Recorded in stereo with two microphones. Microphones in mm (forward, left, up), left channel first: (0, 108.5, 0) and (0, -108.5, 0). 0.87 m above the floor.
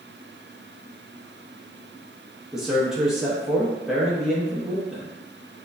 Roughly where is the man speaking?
Centre.